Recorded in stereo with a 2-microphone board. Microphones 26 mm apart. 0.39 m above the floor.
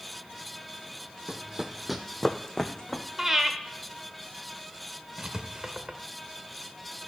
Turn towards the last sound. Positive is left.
turn(degrees=-25)  # may be behind; listen again after turning